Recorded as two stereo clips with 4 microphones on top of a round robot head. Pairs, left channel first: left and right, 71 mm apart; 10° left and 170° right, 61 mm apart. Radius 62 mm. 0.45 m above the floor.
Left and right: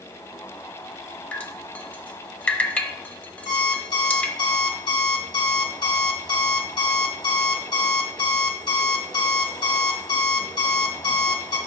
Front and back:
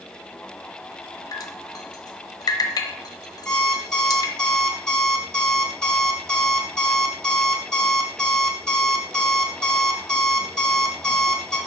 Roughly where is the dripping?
Ahead.